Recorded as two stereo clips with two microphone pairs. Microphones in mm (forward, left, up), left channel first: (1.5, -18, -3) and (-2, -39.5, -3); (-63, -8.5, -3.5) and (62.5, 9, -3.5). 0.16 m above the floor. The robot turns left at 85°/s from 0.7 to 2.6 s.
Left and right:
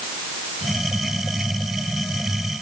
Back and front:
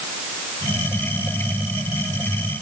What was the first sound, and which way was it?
Only background noise.